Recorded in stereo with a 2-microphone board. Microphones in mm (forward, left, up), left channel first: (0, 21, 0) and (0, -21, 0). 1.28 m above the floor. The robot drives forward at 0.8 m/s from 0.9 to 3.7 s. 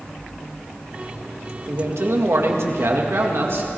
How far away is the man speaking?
About 1.8 m.